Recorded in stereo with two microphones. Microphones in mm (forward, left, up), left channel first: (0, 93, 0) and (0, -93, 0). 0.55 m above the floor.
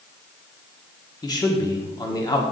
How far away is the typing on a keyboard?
I don't hear typing on a keyboard.